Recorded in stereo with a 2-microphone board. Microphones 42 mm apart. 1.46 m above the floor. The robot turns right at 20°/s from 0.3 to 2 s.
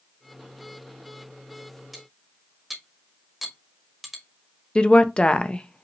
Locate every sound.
1.9 s cutlery clinking: centre (ahead or behind), 1.3 m
4.8 s a woman speaking: 25° left (ahead or behind), 0.6 m